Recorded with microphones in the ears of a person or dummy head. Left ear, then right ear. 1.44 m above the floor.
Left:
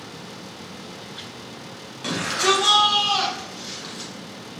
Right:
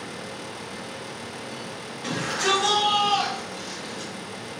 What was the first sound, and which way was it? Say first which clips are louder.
A shout: left 3 dB; 10° left (ahead or behind).